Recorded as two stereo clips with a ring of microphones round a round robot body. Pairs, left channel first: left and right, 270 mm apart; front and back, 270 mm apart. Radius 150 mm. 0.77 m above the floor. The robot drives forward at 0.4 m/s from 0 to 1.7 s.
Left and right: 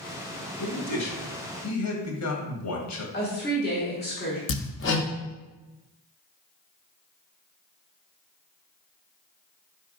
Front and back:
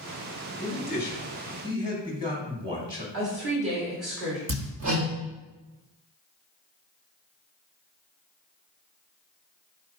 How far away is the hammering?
About 0.9 m.